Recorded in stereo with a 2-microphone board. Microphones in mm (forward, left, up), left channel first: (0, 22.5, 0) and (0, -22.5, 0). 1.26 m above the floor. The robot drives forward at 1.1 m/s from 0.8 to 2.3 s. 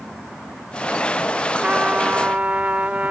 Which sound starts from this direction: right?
A trumpet, at 1.6 s.